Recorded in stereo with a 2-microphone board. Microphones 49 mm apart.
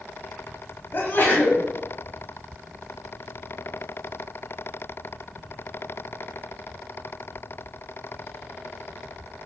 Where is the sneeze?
45° left (ahead or behind), 1.7 m.